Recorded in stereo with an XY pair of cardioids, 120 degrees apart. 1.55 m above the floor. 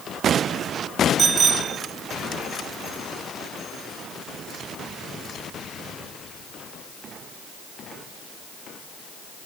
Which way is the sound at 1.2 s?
40° right.